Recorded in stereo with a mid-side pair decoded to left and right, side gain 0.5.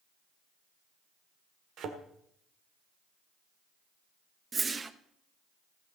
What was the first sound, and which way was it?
A thud, 65° right.